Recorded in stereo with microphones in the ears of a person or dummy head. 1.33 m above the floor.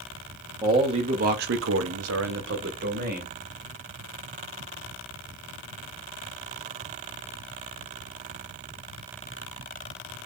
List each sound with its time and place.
0.6 s a man speaking: 20° right (ahead or behind), 1.0 m; by 3.3 s 45° right (ahead or behind), 1.5 m